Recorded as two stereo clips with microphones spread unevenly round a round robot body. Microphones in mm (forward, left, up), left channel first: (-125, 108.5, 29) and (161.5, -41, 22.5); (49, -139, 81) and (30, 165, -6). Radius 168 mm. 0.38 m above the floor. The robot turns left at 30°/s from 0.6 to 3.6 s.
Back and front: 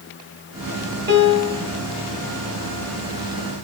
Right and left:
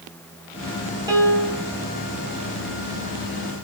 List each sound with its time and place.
1.1 s a piano: 25° left, 1.7 m; by 1.7 s 10° left, 1.7 m